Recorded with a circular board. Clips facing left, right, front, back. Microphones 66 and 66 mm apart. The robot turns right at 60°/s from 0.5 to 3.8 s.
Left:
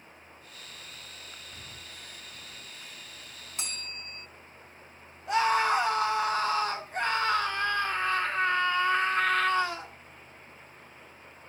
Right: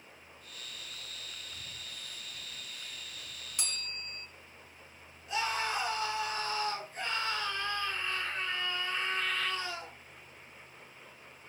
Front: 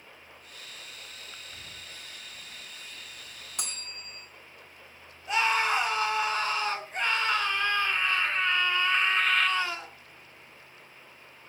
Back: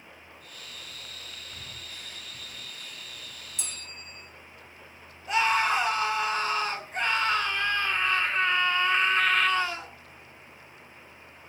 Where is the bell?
25° left, 4 m; by 4.3 s 35° left, 4 m.